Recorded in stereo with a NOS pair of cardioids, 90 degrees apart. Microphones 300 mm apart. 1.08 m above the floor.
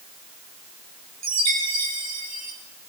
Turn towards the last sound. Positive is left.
turn(degrees=-60)